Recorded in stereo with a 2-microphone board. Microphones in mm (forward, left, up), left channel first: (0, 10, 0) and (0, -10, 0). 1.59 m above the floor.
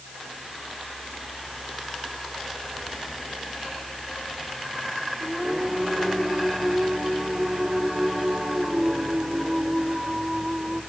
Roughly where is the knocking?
I don't hear knocking.